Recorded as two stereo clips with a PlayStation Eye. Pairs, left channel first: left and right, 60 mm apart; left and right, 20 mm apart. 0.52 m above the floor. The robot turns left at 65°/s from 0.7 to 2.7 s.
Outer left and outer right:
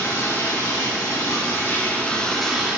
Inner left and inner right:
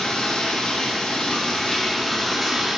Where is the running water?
110° left, 3.5 m; by 2.8 s 20° right, 3.5 m.